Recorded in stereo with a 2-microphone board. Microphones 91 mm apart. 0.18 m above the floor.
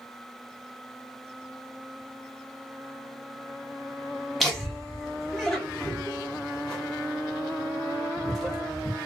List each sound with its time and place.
4.4 s laughter: centre (ahead or behind), 1.2 m